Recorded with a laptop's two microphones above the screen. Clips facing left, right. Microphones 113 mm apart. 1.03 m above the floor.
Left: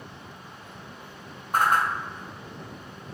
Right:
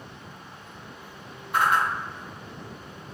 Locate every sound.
1.5 s a whoosh: 40° left (ahead or behind), 0.5 m